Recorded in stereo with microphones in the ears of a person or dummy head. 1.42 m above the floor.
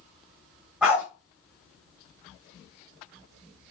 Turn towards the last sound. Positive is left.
turn(degrees=-15)  # may be behind; listen again after turning